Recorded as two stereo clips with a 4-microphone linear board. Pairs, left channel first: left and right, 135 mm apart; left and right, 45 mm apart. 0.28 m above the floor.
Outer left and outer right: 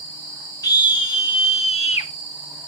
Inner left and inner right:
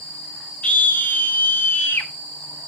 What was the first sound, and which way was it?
A scream, 30° left (ahead or behind).